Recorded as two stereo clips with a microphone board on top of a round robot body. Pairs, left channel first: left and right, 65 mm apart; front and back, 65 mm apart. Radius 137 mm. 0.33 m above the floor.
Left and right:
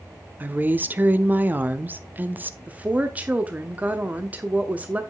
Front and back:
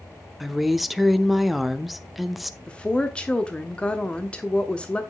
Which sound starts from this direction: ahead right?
A woman speaking, at 2.7 s.